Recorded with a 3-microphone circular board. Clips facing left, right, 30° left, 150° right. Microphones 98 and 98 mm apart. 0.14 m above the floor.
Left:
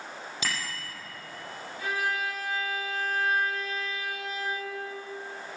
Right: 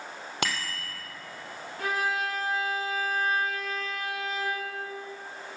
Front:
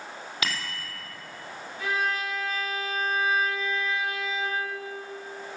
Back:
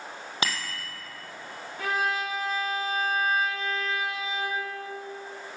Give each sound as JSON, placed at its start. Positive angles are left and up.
{"t": 0.4, "sound": "a bicycle bell", "azimuth_deg": -95, "distance_m": 3.0}
{"t": 1.8, "sound": "a violin", "azimuth_deg": -115, "distance_m": 4.0}